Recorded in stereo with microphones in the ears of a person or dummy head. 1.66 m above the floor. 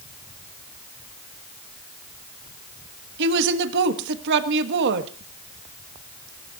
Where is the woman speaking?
60° right (ahead or behind), 1.5 m.